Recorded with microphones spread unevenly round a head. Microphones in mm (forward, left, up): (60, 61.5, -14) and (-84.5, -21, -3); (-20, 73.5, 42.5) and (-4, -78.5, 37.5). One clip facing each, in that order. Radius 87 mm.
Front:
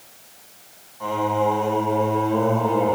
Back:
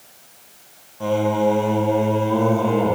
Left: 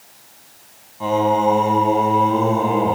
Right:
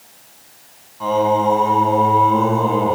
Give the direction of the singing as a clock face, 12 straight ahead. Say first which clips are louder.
Back 4 dB, right 1 dB; 6 o'clock.